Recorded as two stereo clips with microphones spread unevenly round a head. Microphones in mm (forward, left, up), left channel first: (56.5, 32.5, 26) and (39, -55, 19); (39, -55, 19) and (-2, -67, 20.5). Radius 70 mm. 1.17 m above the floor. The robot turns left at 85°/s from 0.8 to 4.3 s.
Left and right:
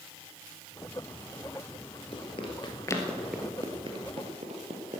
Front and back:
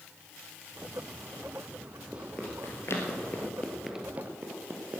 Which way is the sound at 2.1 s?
120° left.